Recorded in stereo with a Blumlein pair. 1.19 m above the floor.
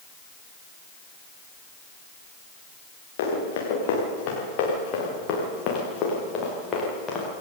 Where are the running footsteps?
55° left, 7.5 m; by 7.3 s 20° left, 8 m.